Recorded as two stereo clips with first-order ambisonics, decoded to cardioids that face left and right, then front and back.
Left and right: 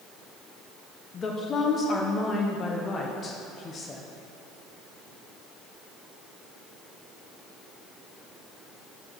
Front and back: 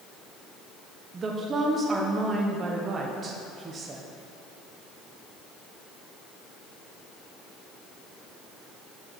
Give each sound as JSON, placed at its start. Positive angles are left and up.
{"t": 1.1, "sound": "a woman speaking", "azimuth_deg": 135, "distance_m": 0.5}